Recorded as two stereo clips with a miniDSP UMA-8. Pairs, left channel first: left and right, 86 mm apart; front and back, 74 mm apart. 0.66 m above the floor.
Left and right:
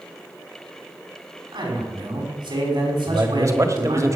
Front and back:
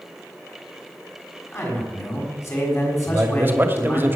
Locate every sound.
1.5 s a man speaking: 55° right, 6 m
3.1 s a man speaking: 130° right, 1.7 m